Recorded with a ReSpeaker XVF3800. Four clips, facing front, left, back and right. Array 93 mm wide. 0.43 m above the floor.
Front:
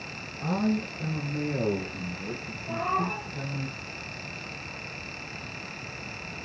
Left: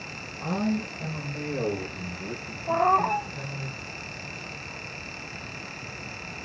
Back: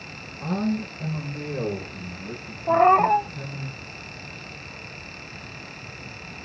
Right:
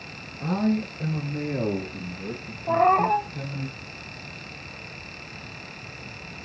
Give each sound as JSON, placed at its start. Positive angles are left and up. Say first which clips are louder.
{"t": 0.4, "sound": "a man speaking", "louder": "right 3 dB, back 1 dB", "azimuth_deg": -75, "distance_m": 8.0}
{"t": 2.7, "sound": "a cat meowing", "louder": "right 3 dB, back 12 dB", "azimuth_deg": -150, "distance_m": 1.1}